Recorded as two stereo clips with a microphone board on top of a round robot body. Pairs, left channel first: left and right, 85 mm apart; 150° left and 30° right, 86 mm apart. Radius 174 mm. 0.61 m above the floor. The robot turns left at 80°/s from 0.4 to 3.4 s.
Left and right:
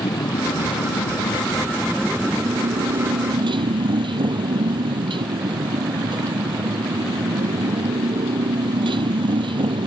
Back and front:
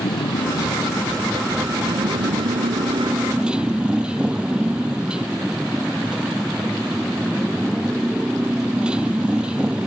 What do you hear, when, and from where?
0.0 s a motorcycle: 130° left; by 9.9 s 110° right